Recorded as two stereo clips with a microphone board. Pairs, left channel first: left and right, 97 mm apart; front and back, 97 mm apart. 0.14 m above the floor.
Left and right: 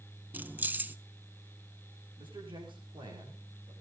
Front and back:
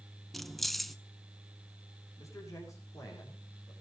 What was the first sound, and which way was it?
Keys jangling, 85° right.